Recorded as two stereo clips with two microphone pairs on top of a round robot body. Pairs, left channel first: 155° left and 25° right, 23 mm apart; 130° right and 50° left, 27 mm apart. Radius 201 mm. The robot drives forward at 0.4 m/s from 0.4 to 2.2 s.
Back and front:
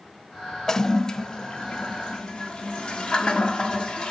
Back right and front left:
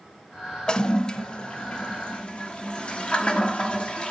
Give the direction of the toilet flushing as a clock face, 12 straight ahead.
5 o'clock.